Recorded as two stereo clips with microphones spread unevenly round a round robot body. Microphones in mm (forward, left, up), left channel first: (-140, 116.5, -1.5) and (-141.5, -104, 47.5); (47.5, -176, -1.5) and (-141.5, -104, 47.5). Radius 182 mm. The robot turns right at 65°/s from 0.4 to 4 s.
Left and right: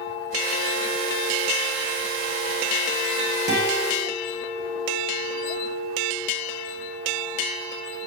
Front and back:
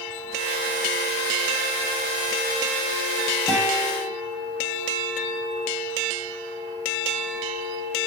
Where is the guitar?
130° right, 9 m; by 4.1 s 95° right, 9 m.